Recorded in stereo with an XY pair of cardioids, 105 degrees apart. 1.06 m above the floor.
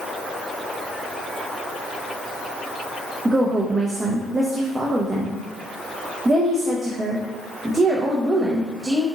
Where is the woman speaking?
25° right, 0.7 m.